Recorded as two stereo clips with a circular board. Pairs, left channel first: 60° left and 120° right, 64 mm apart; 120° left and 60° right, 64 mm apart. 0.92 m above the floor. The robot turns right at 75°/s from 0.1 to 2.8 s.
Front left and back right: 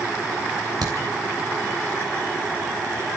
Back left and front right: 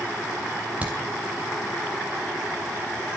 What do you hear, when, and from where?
0.8 s a crack: 130° right, 3.5 m; by 1.0 s 115° right, 3.5 m